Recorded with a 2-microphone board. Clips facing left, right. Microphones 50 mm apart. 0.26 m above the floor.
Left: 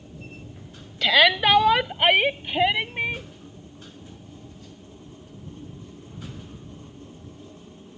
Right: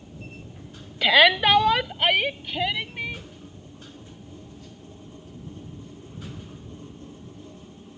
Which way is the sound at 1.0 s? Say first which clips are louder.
Right 1 dB; 10° right (ahead or behind).